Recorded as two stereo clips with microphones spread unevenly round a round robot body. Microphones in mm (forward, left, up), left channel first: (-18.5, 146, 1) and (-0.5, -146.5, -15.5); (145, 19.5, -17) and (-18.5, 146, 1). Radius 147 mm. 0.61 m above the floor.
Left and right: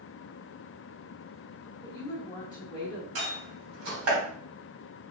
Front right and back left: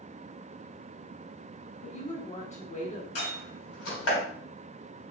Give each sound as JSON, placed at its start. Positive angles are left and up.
{"t": 1.8, "sound": "a woman speaking", "azimuth_deg": 15, "distance_m": 1.3}
{"t": 3.1, "sound": "a door slam", "azimuth_deg": -45, "distance_m": 2.5}